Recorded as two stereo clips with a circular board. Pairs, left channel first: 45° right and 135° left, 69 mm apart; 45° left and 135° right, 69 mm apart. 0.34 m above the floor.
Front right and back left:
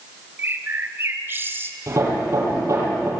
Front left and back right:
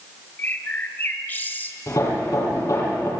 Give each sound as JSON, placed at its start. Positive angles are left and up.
{"t": 0.4, "sound": "a bird", "azimuth_deg": 95, "distance_m": 1.5}
{"t": 1.9, "sound": "hammering", "azimuth_deg": 85, "distance_m": 9.5}